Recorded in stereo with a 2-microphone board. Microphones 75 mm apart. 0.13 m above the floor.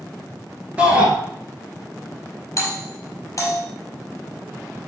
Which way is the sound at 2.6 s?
45° left (ahead or behind).